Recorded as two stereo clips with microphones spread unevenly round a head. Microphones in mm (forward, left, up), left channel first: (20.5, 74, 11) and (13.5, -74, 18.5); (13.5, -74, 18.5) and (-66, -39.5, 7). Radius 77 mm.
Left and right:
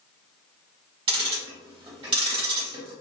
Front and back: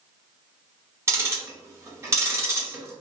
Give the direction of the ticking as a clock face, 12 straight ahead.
5 o'clock.